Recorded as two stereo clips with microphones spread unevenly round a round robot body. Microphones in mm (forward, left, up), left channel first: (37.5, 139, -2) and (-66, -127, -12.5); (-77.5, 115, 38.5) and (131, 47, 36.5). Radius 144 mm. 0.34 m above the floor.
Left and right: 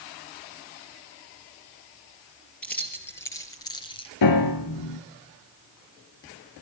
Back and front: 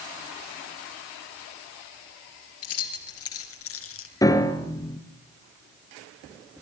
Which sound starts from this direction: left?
A piano, at 4.2 s.